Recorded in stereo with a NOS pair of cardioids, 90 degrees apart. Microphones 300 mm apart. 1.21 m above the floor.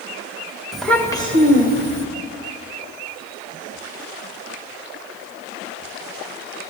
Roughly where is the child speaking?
Ahead.